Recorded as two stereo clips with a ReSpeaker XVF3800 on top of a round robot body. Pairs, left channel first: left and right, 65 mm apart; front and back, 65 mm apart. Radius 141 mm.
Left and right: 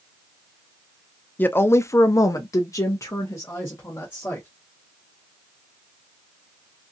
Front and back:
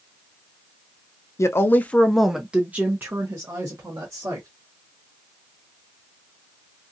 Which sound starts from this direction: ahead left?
A woman speaking, at 1.4 s.